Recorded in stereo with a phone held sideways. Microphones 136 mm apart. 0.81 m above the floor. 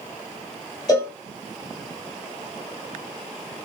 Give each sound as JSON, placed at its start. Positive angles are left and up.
{"t": 0.9, "sound": "a cowbell", "side_deg": 30, "distance_m": 1.3}